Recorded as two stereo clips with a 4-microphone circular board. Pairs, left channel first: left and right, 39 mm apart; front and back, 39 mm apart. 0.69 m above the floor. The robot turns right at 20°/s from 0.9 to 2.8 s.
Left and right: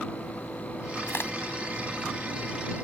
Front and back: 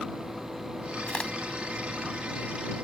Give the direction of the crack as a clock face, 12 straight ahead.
10 o'clock.